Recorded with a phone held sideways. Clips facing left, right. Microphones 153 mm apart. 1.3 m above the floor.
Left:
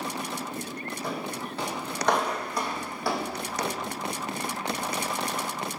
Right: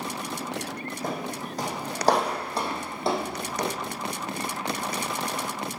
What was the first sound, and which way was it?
Footsteps, 45° right (ahead or behind).